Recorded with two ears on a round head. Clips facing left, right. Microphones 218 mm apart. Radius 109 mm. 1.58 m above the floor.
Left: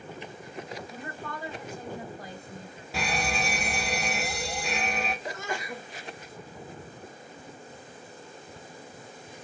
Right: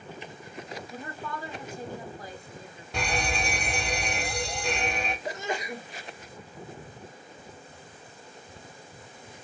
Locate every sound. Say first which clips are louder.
0.9 s a woman speaking: right 1 dB; 80° right, 2 m
2.9 s a fire alarm: even; 5° left (ahead or behind), 0.6 m
5.2 s a sneeze: right 2 dB; 20° right (ahead or behind), 1.2 m